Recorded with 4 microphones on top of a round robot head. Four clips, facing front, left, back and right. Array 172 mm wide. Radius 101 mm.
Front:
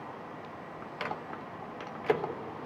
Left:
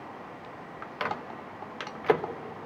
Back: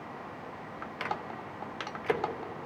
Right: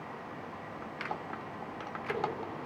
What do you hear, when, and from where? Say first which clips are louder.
1.0 s a microwave: left 6 dB, back 1 dB; 80° left, 1.6 m